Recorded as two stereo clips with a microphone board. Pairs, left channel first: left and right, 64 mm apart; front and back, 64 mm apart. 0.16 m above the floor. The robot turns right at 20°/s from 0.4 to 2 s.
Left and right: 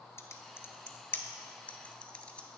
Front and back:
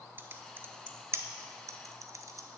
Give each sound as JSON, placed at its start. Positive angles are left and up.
{"t": 0.2, "sound": "typing on a keyboard", "azimuth_deg": 125, "distance_m": 0.5}